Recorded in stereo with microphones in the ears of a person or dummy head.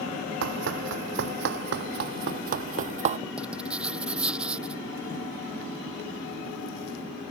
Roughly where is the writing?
Centre.